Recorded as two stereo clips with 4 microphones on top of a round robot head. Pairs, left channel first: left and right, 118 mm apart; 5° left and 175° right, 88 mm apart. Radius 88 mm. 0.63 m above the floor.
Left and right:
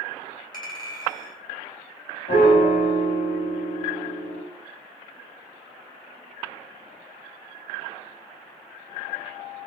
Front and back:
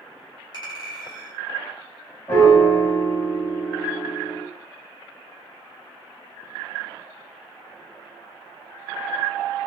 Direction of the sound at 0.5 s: 40° left.